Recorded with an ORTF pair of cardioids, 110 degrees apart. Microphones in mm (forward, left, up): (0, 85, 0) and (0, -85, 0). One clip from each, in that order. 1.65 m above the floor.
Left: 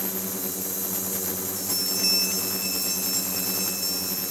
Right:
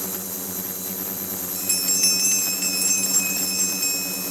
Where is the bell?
50° right, 2 m.